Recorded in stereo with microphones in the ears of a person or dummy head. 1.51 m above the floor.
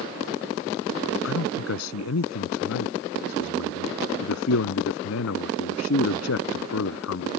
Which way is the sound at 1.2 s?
85° left.